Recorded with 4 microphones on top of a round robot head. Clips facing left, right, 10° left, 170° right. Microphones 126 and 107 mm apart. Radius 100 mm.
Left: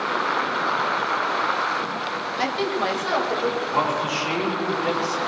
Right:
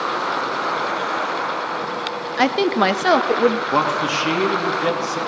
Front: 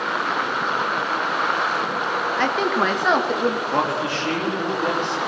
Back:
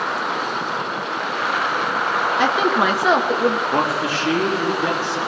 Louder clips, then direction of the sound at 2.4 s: Right 8 dB, back 3 dB; 95° right.